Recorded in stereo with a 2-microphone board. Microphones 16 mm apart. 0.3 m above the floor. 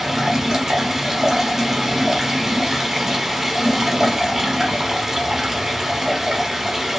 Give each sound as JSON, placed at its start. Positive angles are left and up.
{"t": 0.0, "sound": "running water", "side_deg": -45, "distance_m": 0.9}